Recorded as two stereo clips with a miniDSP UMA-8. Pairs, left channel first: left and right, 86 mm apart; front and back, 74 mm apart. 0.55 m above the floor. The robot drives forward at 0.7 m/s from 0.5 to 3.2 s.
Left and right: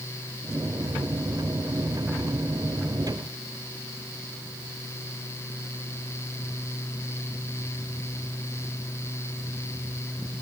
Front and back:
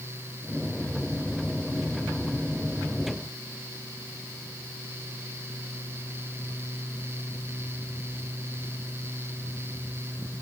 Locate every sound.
Only background noise.